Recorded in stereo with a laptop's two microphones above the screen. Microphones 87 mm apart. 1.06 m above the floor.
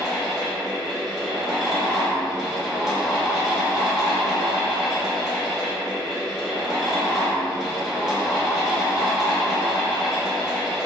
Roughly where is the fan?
Centre.